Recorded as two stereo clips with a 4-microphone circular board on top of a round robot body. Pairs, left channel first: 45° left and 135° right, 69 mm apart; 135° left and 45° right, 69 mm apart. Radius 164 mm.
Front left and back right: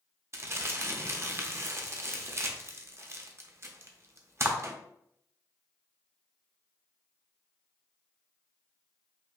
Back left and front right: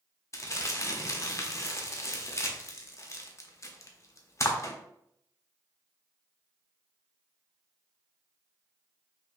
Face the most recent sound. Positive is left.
turn(degrees=180)